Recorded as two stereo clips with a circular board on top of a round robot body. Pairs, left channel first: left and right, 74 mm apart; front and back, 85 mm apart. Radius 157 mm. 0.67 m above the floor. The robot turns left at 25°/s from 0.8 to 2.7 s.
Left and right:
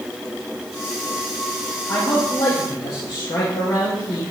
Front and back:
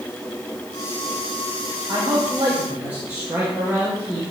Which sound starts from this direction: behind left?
A man speaking, at 1.9 s.